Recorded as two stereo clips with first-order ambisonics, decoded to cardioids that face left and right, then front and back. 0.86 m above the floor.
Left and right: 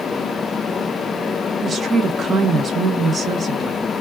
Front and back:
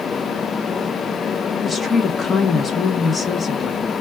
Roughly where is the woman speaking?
Ahead right.